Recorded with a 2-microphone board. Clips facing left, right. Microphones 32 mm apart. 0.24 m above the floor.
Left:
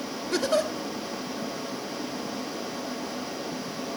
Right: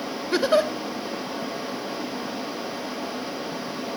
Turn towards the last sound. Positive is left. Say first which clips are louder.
# right 5 dB
turn(degrees=-25)  # may be behind; listen again after turning